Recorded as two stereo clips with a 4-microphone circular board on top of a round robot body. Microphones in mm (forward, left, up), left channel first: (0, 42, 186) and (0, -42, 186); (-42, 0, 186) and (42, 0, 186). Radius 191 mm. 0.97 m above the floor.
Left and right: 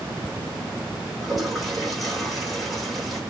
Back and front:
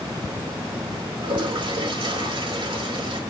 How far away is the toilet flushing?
About 4.5 m.